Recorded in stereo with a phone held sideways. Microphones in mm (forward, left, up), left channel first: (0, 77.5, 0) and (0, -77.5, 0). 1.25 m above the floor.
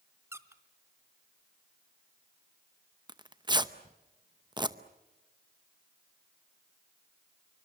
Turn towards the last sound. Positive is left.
turn(degrees=-30)  # may be behind; listen again after turning